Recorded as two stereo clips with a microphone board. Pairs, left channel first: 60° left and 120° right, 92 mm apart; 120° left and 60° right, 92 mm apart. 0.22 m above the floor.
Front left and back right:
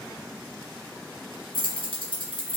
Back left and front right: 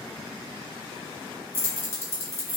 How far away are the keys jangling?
About 1.7 m.